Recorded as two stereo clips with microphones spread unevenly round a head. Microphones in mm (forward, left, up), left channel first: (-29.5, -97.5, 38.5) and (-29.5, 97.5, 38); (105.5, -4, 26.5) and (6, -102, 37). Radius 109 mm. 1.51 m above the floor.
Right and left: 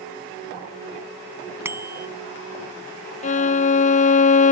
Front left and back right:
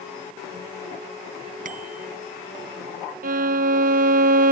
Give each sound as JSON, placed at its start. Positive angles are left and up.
{"t": 1.6, "sound": "a bicycle bell", "azimuth_deg": 170}
{"t": 3.2, "sound": "a violin", "azimuth_deg": -140}